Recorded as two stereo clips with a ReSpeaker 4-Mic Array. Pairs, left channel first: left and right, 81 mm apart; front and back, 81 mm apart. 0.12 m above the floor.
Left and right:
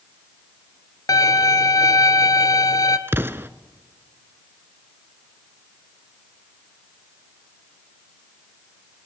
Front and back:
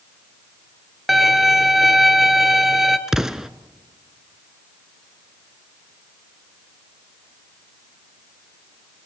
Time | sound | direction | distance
1.1 | a violin | 90° left | 0.9 m
3.1 | an explosion | 105° right | 0.6 m